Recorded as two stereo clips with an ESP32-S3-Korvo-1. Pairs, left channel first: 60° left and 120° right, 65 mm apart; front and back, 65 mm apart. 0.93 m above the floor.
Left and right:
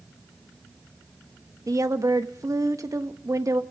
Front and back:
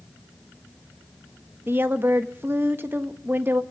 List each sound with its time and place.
1.7 s a woman speaking: 130° right, 1.2 m